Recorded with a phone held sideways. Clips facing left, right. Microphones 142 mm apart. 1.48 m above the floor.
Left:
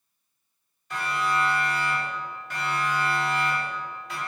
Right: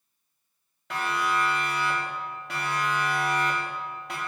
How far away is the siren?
About 5 m.